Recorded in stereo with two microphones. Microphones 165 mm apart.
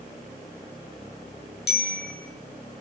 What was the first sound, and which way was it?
A bicycle bell, 85° left.